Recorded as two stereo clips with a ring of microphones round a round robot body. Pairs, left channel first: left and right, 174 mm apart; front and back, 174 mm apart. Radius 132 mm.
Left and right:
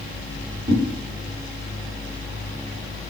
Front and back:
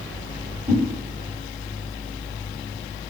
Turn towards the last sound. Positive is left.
turn(degrees=-100)